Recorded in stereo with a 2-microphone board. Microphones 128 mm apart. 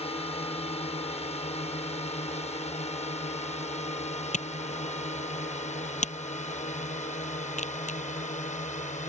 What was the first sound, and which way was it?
A drone, 55° left (ahead or behind).